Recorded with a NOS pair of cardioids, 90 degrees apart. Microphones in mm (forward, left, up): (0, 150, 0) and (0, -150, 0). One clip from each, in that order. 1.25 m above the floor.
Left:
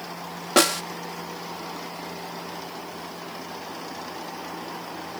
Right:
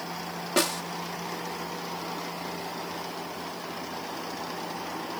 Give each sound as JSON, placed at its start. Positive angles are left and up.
{"t": 0.6, "sound": "a snare drum", "azimuth_deg": 45}